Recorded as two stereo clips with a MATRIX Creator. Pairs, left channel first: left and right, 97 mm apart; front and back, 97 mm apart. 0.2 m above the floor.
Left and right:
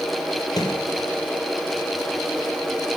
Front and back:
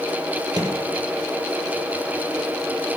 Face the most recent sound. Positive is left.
turn(degrees=135)